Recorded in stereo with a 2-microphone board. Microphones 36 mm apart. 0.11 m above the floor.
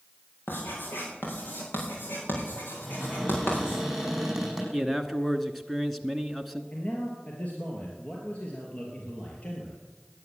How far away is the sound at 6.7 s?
About 3 m.